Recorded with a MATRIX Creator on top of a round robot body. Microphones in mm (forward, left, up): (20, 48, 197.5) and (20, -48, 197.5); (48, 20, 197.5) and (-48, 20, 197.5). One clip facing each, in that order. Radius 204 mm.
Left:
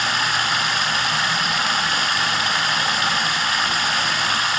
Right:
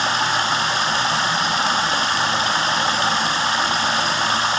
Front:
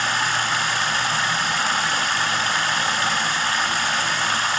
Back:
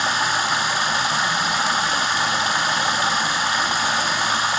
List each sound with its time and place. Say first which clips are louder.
0.0 s running water: right 2 dB, back 2 dB; 120° right, 0.9 m